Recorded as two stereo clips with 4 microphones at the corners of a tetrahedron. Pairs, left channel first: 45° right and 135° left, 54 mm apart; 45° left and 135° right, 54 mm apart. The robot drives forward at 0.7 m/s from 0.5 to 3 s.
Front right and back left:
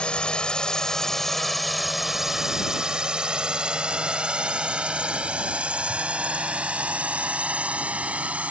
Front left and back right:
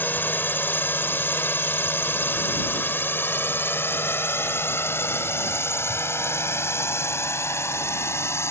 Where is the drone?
15° left; by 8.5 s 75° left.